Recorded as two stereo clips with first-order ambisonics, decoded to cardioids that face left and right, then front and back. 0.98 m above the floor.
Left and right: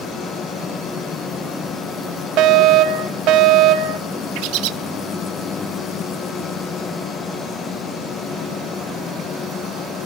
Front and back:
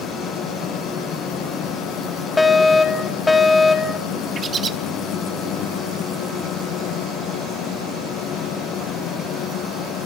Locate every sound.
2.4 s a fire alarm: 80° right, 1.9 m
4.3 s a bird: 115° right, 0.9 m